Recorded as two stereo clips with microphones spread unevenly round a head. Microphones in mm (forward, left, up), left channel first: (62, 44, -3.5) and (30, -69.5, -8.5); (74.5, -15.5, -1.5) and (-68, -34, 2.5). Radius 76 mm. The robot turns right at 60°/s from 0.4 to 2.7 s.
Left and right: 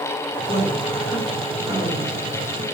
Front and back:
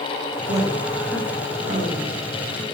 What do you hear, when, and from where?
0.5 s a woman speaking: 115° left, 5 m; by 2.2 s 145° right, 5 m